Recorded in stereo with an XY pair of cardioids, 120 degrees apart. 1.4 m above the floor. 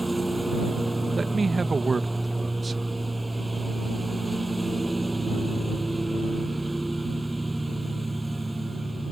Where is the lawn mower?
15° right.